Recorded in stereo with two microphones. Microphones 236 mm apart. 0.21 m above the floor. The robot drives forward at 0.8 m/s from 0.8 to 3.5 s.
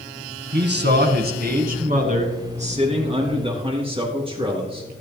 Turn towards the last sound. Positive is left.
turn(degrees=-25)  # may be behind; listen again after turning